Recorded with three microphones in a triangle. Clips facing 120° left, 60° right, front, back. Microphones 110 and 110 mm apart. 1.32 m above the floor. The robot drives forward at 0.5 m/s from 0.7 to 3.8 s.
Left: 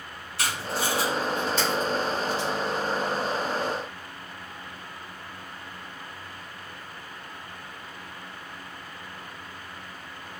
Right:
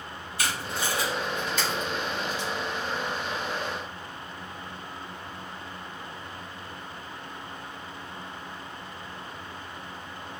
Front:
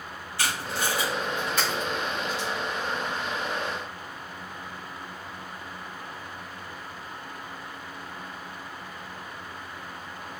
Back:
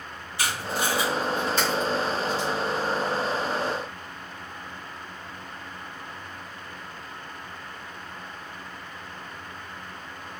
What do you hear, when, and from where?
0.4 s tape being pulled: 110° left, 2 m; by 2.5 s 130° left, 2.5 m